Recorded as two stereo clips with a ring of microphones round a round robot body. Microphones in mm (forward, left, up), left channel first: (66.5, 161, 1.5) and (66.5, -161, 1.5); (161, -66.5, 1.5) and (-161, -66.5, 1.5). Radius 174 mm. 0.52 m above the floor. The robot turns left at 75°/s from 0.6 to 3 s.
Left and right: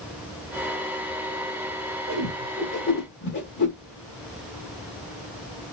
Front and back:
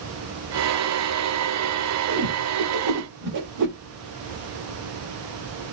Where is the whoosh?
145° right, 1.0 m; by 3.8 s 150° left, 1.0 m.